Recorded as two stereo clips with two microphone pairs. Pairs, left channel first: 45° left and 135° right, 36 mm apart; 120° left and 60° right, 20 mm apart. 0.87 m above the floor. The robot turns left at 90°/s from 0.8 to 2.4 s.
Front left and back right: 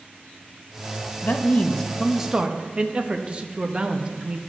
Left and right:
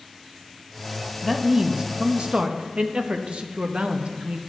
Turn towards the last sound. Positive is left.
turn(degrees=-75)